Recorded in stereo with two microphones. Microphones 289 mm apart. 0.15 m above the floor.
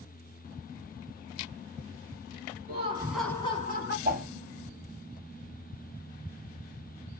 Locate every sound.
2.7 s laughter: 30° right (ahead or behind), 1.3 m; by 4.0 s 40° left (ahead or behind), 1.5 m
4.0 s a whoosh: 30° right (ahead or behind), 0.9 m